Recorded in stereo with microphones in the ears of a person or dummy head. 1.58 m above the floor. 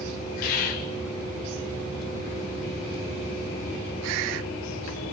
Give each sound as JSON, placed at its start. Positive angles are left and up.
{"t": 0.4, "sound": "whispering", "side_deg": 50, "distance_m": 3.5}